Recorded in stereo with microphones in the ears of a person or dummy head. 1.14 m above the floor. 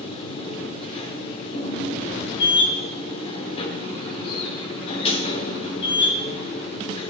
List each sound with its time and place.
0.0 s a machine running: 30° left (ahead or behind), 1.6 m